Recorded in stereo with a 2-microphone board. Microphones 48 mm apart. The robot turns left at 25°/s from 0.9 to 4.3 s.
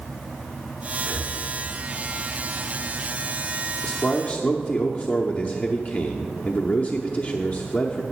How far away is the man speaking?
About 0.7 m.